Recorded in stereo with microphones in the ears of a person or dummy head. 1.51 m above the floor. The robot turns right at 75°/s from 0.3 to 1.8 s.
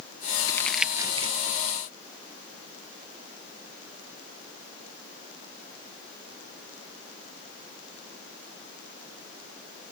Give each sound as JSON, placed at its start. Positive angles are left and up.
{"t": 0.5, "sound": "crumpling", "side_deg": 25}